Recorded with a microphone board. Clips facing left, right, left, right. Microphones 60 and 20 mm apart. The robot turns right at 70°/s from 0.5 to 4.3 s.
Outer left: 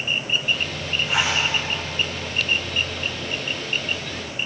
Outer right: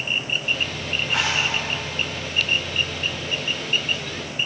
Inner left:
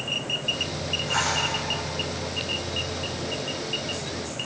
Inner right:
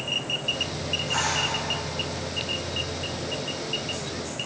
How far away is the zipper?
About 8.5 m.